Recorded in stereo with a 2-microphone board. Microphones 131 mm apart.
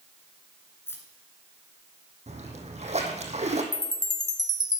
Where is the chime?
30° left (ahead or behind), 0.6 m.